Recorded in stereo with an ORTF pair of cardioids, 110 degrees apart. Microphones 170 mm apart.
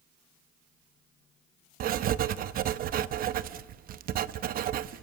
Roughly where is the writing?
Ahead right.